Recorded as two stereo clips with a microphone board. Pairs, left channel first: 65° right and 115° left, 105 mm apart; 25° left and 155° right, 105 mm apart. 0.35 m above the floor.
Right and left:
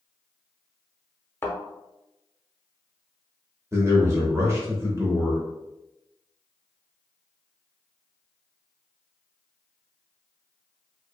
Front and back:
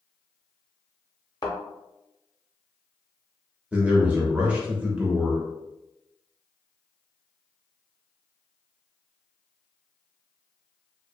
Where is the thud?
10° right, 0.7 m.